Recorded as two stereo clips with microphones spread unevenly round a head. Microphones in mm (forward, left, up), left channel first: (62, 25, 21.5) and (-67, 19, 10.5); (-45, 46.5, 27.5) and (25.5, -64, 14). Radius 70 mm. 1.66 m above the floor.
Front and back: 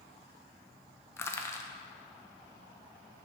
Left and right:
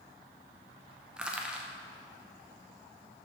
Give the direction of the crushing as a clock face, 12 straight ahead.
11 o'clock.